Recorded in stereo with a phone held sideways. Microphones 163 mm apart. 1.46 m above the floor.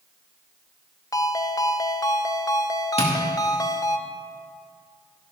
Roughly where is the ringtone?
Left.